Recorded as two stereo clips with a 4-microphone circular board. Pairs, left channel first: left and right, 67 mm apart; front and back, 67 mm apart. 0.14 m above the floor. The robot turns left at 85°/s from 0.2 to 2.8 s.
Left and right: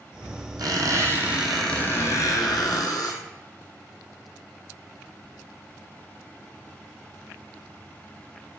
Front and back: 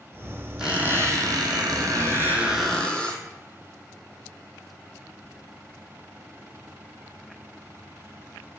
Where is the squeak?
100° right, 0.6 m; by 3.2 s 75° left, 0.6 m.